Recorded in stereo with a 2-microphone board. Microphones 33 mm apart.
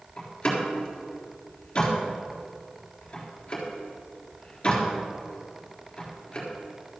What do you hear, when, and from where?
0.2 s a door slam: 25° left (ahead or behind), 3.5 m